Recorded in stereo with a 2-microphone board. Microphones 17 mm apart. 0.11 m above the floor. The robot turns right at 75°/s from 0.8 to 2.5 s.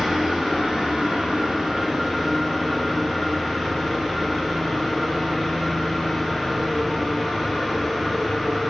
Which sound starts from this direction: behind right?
An engine running, at 0.0 s.